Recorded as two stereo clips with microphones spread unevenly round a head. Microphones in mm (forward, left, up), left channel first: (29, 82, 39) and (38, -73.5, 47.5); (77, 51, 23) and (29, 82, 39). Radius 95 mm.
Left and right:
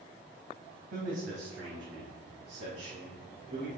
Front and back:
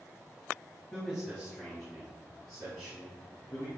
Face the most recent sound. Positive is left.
turn(degrees=-85)